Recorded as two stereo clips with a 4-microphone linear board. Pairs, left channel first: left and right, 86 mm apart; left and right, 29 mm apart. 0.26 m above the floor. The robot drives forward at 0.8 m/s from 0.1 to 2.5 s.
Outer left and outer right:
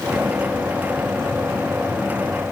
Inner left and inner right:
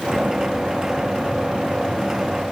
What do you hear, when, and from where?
Only background noise.